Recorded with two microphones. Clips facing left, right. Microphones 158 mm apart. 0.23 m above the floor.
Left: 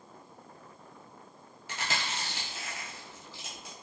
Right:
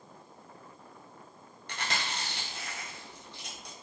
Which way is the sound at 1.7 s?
5° left (ahead or behind).